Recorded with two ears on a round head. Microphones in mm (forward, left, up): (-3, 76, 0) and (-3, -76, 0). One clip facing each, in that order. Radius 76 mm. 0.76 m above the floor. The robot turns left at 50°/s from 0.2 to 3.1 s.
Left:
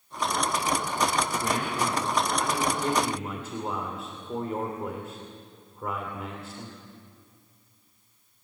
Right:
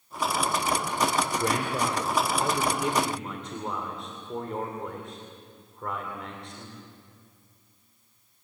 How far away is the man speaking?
About 2.5 m.